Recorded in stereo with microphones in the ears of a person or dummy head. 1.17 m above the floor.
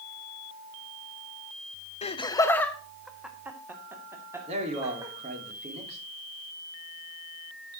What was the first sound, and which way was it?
Laughter, 30° left (ahead or behind).